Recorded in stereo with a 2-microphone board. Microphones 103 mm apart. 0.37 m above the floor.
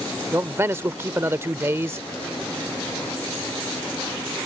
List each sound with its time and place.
0.3 s a man speaking: 25° right (ahead or behind)